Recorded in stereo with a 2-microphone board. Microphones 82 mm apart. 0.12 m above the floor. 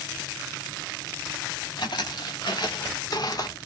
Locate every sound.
1.8 s footsteps: 55° left (ahead or behind), 2 m; by 3.6 s 45° left (ahead or behind), 1.0 m